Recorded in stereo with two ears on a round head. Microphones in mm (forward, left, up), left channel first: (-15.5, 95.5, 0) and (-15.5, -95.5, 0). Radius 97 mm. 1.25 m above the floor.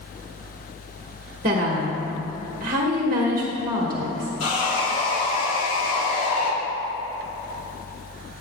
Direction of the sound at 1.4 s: 40° right (ahead or behind).